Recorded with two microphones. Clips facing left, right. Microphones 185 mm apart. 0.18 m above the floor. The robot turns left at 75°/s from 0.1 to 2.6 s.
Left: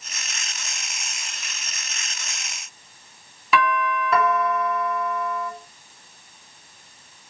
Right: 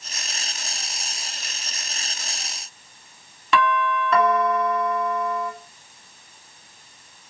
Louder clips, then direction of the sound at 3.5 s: Right 1 dB; 5° left (ahead or behind).